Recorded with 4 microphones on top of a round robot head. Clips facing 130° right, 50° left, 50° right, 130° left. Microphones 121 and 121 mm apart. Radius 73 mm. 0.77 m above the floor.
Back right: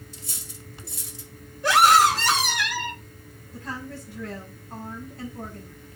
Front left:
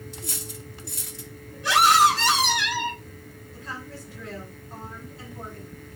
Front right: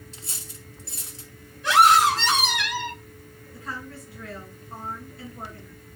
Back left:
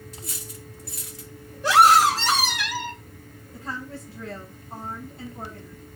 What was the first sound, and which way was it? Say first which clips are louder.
Cutlery clinking: front left 6 dB, back left 4 dB; 15° left.